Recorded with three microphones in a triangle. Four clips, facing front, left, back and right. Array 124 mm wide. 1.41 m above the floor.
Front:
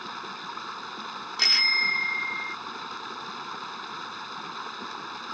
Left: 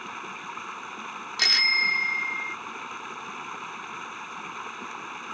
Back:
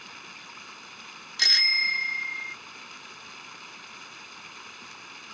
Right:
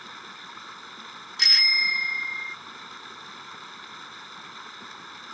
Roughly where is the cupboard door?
I don't hear a cupboard door.